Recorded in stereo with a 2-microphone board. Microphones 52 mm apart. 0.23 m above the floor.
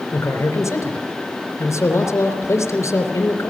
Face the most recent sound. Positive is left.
turn(degrees=70)  # may be behind; listen again after turning